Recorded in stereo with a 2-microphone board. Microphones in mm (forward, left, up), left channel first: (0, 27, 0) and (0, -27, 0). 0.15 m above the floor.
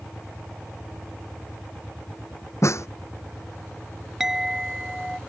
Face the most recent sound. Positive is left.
turn(degrees=-10)  # may be behind; listen again after turning